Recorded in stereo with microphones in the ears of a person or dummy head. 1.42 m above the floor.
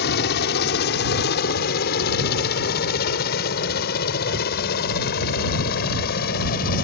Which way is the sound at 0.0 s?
60° left (ahead or behind).